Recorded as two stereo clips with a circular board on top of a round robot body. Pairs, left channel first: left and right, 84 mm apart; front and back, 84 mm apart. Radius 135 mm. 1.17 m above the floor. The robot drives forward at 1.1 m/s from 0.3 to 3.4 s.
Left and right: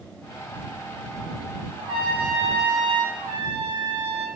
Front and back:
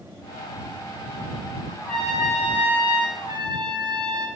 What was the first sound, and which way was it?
A trumpet, 85° right.